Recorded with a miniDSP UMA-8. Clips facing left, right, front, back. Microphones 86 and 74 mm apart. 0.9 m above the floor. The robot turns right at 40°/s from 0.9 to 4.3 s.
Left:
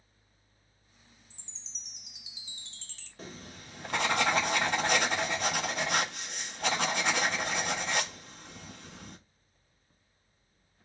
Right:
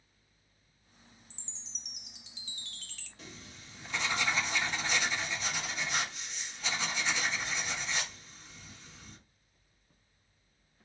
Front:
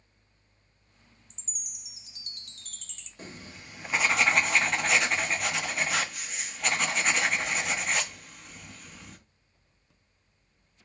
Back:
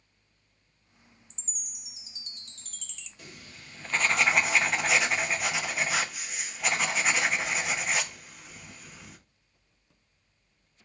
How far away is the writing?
About 0.7 m.